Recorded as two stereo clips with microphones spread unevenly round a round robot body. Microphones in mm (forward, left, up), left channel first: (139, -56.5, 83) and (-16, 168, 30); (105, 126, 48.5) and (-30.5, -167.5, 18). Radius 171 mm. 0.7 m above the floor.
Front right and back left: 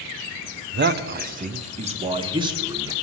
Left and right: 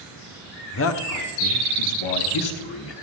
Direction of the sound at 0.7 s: 115° left.